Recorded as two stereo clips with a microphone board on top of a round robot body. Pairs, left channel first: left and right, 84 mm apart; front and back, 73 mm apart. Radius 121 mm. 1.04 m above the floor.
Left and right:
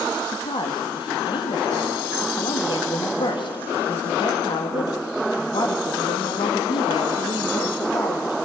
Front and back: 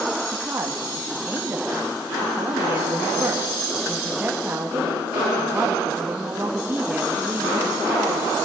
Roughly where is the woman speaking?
Behind left.